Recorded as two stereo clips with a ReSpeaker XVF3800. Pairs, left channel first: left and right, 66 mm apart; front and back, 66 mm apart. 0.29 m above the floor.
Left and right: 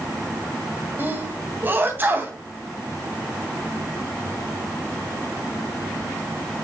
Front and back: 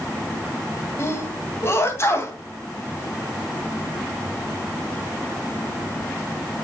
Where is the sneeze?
40° right, 2.5 m.